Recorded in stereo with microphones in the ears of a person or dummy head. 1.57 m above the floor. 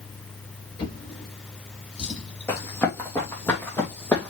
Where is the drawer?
30° left (ahead or behind), 5.5 m.